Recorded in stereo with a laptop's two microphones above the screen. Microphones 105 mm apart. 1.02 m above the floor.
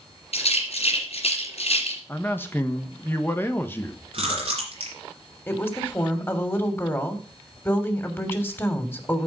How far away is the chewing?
About 5 m.